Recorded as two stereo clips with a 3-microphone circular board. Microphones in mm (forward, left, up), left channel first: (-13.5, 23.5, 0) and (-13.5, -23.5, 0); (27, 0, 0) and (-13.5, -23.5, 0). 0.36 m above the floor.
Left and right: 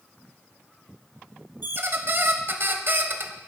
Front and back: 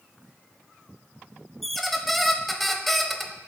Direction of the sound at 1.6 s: 60° right.